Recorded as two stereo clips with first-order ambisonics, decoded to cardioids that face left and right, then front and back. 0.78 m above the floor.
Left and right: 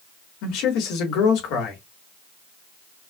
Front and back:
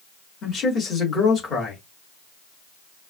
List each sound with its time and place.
0.4 s a man speaking: 70° left, 2.0 m